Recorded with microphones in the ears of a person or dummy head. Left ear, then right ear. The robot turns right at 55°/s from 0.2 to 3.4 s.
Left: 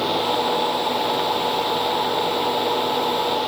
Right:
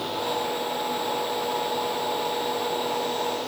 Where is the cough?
No cough in this recording.